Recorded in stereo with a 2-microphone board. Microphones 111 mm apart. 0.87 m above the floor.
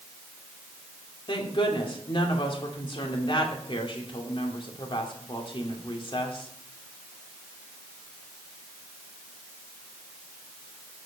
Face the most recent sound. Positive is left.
turn(degrees=50)  # may be behind; listen again after turning